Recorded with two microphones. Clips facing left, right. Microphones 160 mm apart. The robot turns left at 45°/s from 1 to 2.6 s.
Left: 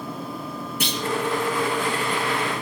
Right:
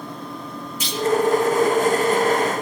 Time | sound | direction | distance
0.8 | a clunk | 60° left (ahead or behind) | 1.7 m